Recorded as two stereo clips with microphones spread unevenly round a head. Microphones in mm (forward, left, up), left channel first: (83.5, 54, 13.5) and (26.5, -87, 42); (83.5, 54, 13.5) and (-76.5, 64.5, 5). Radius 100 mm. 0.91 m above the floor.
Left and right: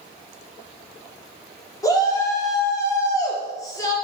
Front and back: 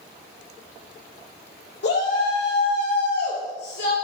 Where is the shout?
5° left, 3 m.